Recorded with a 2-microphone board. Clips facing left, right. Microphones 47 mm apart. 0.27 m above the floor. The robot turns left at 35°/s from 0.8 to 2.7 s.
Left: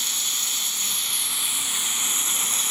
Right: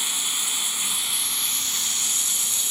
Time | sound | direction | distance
0.0 | running water | 165° right | 0.7 m